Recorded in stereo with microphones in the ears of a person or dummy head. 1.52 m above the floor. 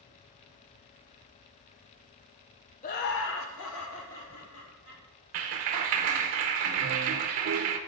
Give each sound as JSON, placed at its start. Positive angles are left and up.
{"t": 2.8, "sound": "laughter", "side_deg": 40, "distance_m": 0.7}
{"t": 5.3, "sound": "a clap", "side_deg": -35, "distance_m": 0.6}